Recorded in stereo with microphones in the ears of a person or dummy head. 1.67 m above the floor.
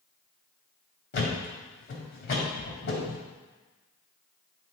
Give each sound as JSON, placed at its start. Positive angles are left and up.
{"t": 1.1, "sound": "a thud", "side_deg": 50, "distance_m": 2.0}